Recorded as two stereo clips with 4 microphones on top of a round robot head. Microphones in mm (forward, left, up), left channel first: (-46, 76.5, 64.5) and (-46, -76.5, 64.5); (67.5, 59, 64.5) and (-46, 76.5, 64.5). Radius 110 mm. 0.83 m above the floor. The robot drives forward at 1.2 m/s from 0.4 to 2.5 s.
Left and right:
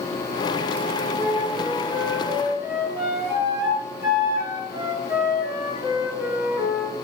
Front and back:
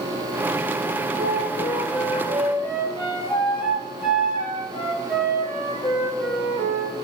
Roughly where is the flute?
Behind right.